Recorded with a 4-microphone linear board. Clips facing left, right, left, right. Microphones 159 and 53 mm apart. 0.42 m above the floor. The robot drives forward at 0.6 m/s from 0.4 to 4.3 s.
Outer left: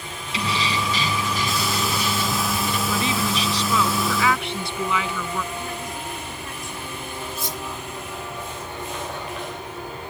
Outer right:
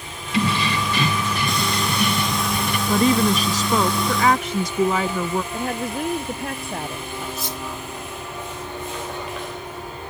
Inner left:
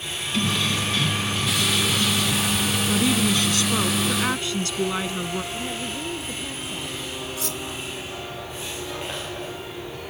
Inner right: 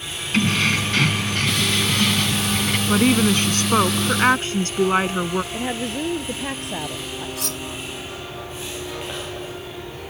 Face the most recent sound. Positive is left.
turn(degrees=-65)  # may be behind; listen again after turning